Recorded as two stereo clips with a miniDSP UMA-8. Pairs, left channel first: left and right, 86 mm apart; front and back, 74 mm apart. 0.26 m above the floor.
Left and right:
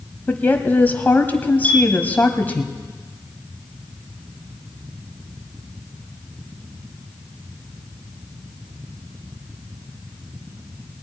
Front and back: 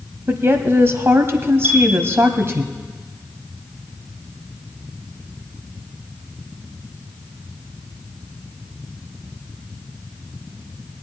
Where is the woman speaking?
150° left, 1.2 m.